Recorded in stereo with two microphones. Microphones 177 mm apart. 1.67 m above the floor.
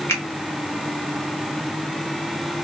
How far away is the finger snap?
About 1.0 m.